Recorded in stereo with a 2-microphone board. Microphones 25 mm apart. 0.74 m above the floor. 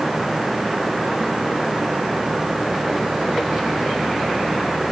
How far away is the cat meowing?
I don't hear a cat meowing.